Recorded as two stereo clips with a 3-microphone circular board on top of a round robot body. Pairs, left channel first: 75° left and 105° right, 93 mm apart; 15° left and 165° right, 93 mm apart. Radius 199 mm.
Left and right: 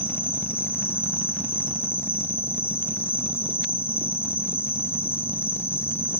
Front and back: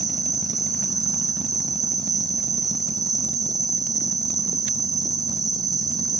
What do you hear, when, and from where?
0.0 s an insect: 145° left, 1.3 m